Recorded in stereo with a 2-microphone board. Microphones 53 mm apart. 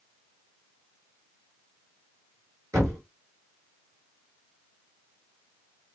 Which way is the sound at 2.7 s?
80° right.